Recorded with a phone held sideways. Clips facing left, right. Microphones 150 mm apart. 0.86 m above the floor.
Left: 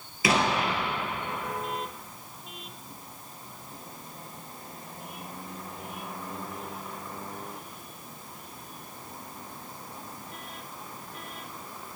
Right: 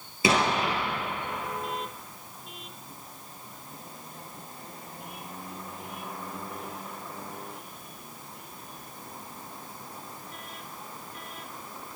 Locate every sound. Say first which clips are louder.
0.2 s an explosion: right 1 dB; 25° right (ahead or behind), 3 m